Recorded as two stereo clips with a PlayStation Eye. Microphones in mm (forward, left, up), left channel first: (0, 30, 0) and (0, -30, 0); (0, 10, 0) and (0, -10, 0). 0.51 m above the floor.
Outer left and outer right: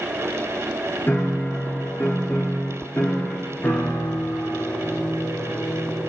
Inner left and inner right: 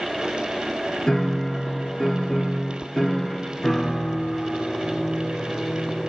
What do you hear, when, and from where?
1.1 s a piano: 40° left (ahead or behind), 1.0 m